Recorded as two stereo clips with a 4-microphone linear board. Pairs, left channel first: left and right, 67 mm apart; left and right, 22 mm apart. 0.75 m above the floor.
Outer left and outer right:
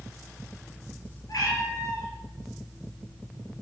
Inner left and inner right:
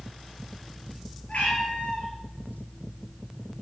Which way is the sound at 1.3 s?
70° left (ahead or behind).